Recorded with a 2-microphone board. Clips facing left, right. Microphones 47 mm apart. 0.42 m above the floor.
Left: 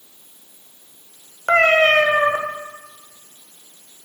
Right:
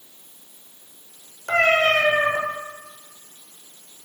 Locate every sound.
1.5 s a cat meowing: 50° left (ahead or behind), 0.8 m